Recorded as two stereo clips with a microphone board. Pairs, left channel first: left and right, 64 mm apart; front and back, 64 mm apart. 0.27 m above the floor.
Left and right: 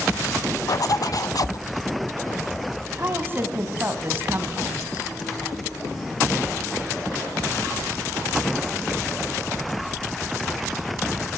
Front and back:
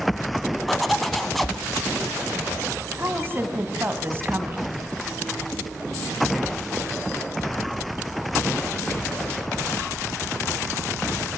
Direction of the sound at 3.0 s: 135° right.